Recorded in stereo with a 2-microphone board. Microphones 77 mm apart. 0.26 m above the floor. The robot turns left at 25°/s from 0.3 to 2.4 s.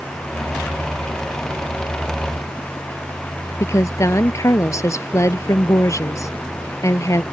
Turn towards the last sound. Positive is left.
turn(degrees=40)  # may be behind; listen again after turning